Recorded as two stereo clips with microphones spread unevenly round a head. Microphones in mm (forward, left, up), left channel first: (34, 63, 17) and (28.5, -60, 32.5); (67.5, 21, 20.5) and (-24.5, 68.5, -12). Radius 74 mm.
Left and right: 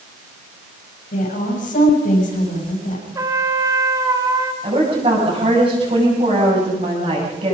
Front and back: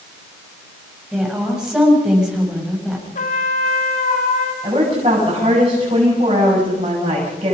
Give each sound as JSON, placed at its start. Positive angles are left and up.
{"t": 1.1, "sound": "a woman speaking", "azimuth_deg": 70, "distance_m": 8.0}
{"t": 3.1, "sound": "a trumpet", "azimuth_deg": -25, "distance_m": 3.0}
{"t": 4.6, "sound": "a woman speaking", "azimuth_deg": -150, "distance_m": 7.5}